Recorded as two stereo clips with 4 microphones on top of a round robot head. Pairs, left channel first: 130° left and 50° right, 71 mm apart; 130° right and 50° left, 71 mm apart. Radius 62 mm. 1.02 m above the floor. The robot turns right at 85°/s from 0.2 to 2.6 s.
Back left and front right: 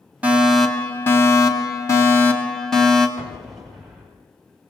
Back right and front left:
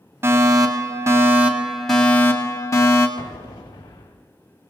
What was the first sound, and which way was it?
A fire alarm, 10° left.